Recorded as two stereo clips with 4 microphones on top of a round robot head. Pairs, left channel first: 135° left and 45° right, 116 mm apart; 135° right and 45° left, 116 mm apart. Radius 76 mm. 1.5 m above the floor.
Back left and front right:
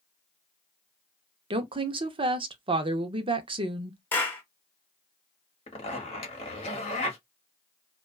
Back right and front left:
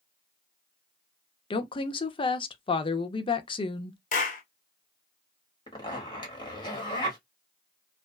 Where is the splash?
No splash in this recording.